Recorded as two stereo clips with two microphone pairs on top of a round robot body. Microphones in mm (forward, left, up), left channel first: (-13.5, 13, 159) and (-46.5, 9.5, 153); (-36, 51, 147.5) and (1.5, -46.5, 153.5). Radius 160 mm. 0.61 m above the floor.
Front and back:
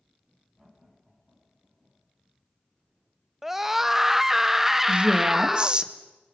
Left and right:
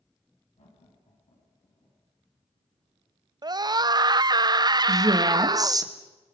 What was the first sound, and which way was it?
Laughter, 95° left.